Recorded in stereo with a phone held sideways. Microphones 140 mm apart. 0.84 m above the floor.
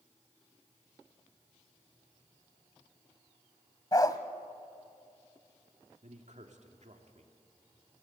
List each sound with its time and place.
3.9 s a dog barking: 30° left (ahead or behind), 1.0 m
6.0 s a man speaking: 65° right (ahead or behind), 2.5 m